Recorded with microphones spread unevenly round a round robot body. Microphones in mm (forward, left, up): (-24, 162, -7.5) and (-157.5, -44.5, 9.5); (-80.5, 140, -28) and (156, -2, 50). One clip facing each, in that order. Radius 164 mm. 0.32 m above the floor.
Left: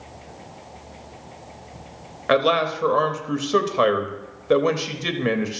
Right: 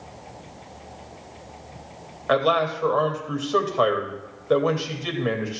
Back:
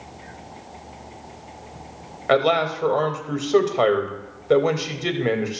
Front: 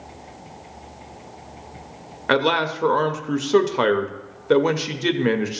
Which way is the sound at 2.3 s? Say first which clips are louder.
Left 2 dB, back 1 dB; 45° left.